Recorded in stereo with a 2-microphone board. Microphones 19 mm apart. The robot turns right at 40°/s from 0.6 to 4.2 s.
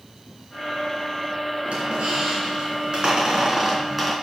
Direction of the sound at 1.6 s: 100° right.